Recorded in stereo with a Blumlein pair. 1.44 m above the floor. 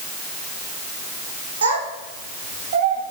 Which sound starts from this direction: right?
A child speaking, at 1.6 s.